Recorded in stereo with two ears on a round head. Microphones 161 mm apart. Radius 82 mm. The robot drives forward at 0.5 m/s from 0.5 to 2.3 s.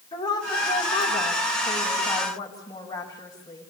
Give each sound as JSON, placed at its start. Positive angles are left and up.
{"t": 0.1, "sound": "a woman speaking", "side_deg": 30, "distance_m": 5.0}